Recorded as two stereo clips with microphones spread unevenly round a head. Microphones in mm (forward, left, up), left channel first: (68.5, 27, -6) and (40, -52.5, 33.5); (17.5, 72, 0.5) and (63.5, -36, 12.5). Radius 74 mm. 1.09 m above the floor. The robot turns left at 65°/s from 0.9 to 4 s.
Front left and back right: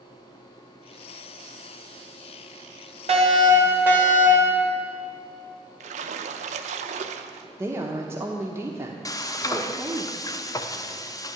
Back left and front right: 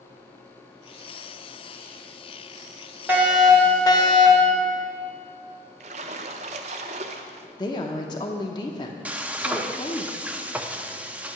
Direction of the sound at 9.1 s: 10° left.